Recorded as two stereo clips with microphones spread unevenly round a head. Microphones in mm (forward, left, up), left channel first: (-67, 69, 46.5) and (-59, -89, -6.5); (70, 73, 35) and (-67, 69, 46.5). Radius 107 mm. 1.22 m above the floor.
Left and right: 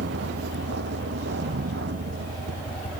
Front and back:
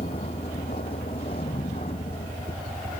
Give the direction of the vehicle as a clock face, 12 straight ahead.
2 o'clock.